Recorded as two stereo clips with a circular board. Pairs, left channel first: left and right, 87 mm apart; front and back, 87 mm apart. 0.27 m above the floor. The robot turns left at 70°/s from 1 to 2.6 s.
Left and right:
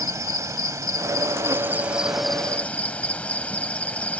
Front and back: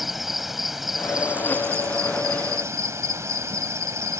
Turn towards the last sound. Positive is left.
turn(degrees=155)